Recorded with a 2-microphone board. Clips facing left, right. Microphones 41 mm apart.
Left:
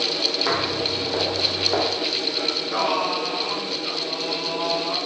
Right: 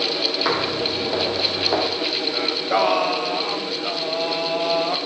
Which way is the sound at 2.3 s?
60° right (ahead or behind).